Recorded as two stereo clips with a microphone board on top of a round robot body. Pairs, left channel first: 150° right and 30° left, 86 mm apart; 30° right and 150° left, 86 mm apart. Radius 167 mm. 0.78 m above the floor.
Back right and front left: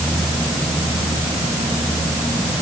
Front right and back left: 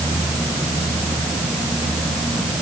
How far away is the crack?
No crack in this recording.